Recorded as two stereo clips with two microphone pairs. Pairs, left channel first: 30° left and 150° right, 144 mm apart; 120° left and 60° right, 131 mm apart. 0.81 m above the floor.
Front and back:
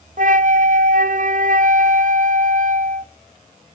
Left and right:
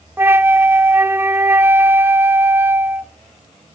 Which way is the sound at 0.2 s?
130° right.